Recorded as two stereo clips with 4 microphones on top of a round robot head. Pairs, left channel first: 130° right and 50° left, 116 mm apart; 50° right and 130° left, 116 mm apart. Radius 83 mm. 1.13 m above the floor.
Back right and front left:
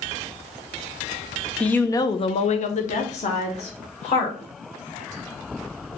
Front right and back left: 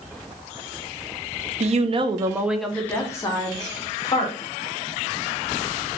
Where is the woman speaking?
145° left, 0.8 m; by 4.4 s 100° right, 1.9 m.